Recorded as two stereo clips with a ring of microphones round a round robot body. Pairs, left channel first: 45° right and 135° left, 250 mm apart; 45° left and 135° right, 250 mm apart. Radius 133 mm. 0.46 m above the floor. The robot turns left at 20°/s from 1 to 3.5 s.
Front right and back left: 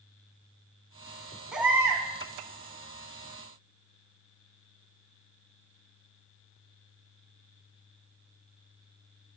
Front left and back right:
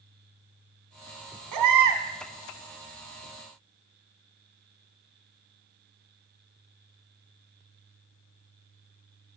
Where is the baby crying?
135° right, 1.7 m; by 2.0 s 150° right, 1.7 m.